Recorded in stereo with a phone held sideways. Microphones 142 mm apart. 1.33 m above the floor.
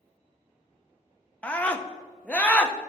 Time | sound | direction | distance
1.4 | a scream | 10° left (ahead or behind) | 1.0 m